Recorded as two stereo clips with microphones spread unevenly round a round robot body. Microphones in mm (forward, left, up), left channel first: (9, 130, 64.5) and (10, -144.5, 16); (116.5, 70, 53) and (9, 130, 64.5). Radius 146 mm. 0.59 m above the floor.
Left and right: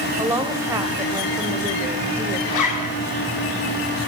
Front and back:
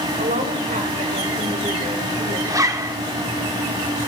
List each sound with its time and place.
0.2 s a woman speaking: 170° right, 2.5 m
2.5 s a zipper: 85° left, 1.6 m